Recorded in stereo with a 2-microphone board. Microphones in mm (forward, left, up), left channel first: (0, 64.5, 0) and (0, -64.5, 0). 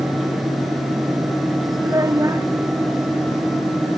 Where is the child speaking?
25° right (ahead or behind).